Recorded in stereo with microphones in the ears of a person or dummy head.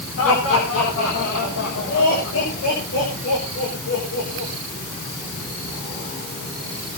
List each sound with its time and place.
0.2 s laughter: 85° left, 9 m; by 4.5 s 70° left (ahead or behind), 5 m